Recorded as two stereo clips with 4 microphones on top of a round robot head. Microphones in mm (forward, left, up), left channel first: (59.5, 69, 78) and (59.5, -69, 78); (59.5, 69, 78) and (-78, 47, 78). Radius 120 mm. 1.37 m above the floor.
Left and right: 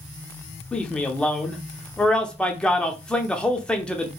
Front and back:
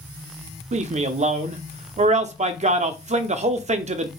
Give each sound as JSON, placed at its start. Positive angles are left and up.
{"t": 0.7, "sound": "a man speaking", "azimuth_deg": 170, "distance_m": 0.5}